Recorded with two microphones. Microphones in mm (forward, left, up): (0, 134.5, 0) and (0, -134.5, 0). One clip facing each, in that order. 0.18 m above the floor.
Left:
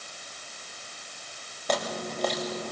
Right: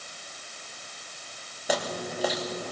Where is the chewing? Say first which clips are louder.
Even; 5° right (ahead or behind), 4 m.